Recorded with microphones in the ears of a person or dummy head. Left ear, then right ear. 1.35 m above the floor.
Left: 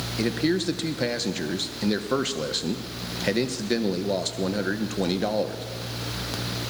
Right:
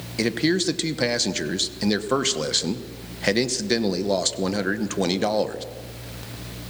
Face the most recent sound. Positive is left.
turn(degrees=-15)  # may be behind; listen again after turning